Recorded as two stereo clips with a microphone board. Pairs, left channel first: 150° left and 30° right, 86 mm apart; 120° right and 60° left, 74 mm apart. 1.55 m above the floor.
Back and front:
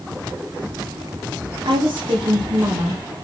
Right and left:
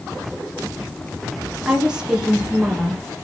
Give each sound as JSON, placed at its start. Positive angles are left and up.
{"t": 1.6, "sound": "a woman speaking", "azimuth_deg": -20, "distance_m": 2.0}